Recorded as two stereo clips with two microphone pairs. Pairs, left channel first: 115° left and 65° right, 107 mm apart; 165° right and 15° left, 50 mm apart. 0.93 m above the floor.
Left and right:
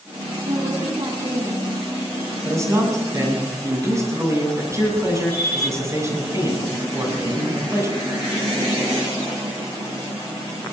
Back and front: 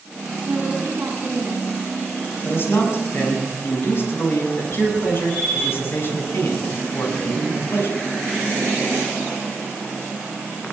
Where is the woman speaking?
55° right, 8.5 m.